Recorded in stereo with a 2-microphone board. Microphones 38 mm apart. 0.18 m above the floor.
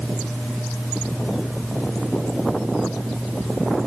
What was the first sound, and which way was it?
Only background noise.